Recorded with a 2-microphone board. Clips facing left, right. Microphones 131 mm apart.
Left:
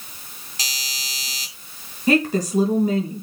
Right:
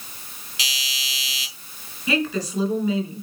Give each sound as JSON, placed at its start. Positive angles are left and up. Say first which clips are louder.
{"t": 0.6, "sound": "a doorbell", "louder": "right 2 dB", "side_deg": 40, "distance_m": 3.5}
{"t": 2.1, "sound": "a woman speaking", "louder": "left 5 dB", "side_deg": 45, "distance_m": 3.5}